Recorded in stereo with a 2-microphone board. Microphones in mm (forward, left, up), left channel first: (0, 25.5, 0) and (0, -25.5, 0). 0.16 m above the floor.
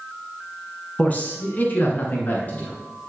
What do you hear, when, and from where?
1.0 s a man speaking: 30° left (ahead or behind), 1.7 m